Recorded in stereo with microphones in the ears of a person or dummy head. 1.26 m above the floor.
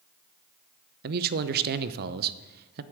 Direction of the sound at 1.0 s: 45° right (ahead or behind).